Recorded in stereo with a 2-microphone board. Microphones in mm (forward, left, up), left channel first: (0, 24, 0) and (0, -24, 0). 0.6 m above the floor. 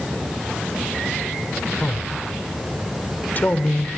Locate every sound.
1.8 s a man speaking: 40° left (ahead or behind), 1.7 m